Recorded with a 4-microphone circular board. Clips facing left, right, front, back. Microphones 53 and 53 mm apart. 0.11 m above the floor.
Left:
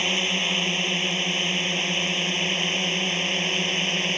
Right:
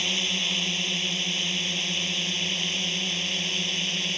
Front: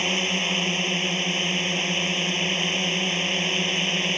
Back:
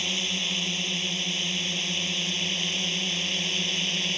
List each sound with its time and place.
0.0 s a drone: 40° left; by 4.2 s 45° left